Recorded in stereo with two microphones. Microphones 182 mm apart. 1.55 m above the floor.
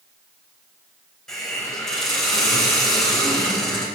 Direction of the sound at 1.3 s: Centre (ahead or behind).